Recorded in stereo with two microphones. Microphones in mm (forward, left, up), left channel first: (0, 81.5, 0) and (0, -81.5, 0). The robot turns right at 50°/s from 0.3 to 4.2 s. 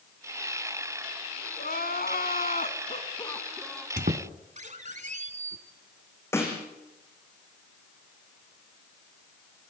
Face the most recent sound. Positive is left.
turn(degrees=15)  # may be behind; listen again after turning